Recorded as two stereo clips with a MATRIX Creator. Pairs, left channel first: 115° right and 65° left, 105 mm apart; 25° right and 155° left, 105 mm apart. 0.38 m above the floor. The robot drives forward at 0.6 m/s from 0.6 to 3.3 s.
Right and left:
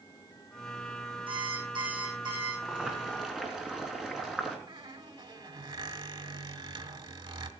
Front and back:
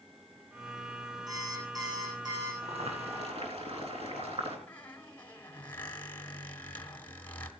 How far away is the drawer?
I don't hear a drawer.